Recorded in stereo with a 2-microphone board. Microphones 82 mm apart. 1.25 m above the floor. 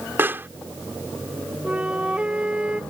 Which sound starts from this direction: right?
A pop, at 0.2 s.